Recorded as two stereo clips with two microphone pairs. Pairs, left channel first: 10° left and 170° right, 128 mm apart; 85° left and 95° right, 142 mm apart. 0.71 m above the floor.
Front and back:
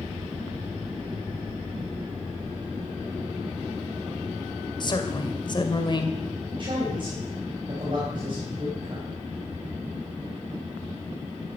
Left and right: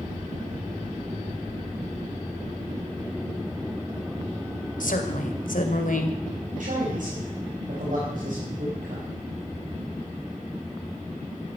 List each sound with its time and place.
4.8 s a woman speaking: 65° left, 2.5 m
6.5 s a man speaking: 120° right, 5 m